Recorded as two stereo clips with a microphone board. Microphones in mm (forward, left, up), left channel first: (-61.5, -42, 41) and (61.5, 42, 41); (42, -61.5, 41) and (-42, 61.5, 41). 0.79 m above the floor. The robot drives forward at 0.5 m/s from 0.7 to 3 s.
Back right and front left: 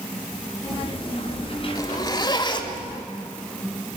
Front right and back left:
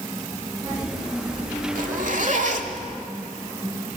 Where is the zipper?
150° left, 1.4 m; by 2.9 s 160° left, 1.9 m.